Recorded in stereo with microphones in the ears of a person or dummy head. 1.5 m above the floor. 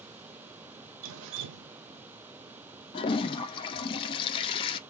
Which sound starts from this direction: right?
Dripping, at 1.0 s.